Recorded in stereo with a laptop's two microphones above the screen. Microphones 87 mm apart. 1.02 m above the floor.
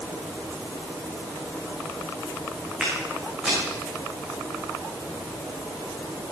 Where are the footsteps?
10° right (ahead or behind), 4 m.